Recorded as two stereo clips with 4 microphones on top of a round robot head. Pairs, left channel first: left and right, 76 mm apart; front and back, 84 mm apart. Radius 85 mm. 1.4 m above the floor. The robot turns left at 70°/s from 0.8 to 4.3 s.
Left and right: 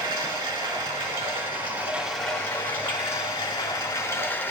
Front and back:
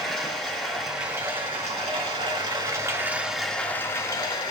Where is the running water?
85° right, 3 m; by 4.5 s 30° left, 3 m.